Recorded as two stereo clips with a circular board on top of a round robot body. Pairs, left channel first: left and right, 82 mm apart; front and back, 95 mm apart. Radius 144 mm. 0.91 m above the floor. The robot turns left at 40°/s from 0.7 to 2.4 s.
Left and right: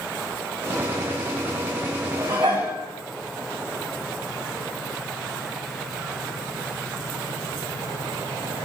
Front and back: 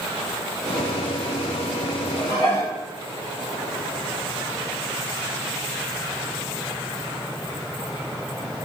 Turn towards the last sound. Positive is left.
turn(degrees=-50)